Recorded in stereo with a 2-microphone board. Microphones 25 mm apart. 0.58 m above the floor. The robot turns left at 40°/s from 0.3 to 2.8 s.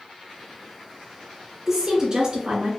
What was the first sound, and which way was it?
A woman speaking, 25° right.